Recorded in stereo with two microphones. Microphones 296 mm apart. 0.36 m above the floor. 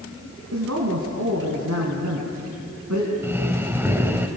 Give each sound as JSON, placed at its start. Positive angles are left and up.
{"t": 0.5, "sound": "a man speaking", "side_deg": -60, "distance_m": 3.5}
{"t": 3.2, "sound": "breathing", "side_deg": -10, "distance_m": 1.5}